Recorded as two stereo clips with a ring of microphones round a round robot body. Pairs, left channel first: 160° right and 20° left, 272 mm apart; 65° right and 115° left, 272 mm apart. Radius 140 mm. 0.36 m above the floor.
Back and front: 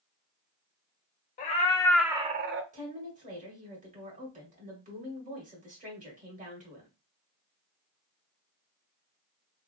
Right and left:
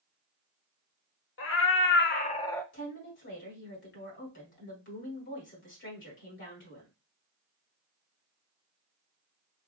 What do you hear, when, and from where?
1.4 s a cat meowing: 100° right, 0.8 m; by 2.6 s 15° left, 0.6 m
2.7 s a woman speaking: 35° right, 1.9 m